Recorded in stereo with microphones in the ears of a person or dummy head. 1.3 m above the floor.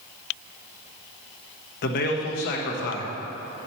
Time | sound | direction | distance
1.8 | a man speaking | 50° left (ahead or behind) | 1.1 m